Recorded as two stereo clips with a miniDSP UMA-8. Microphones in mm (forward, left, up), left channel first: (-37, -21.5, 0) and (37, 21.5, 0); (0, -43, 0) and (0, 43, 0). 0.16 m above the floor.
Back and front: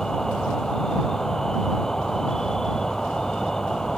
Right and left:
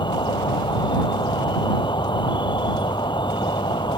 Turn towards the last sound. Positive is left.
turn(degrees=-65)